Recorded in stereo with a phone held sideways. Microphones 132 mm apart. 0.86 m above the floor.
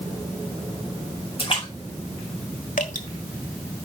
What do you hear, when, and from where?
1.4 s a splash: 45° left (ahead or behind), 4.5 m
2.8 s dripping: 70° left (ahead or behind), 1.3 m